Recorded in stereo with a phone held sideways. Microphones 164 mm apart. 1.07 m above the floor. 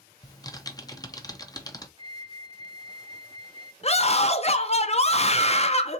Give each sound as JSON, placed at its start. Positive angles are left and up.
{"t": 0.2, "sound": "typing on a keyboard", "side_deg": 20, "distance_m": 0.7}
{"t": 2.0, "sound": "a flute", "side_deg": -35, "distance_m": 0.9}
{"t": 3.8, "sound": "a scream", "side_deg": 40, "distance_m": 0.6}